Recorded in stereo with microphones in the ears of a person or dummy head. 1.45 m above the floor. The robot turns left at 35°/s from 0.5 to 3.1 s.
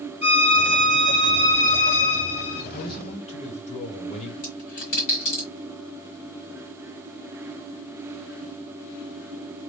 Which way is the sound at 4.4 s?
45° left (ahead or behind).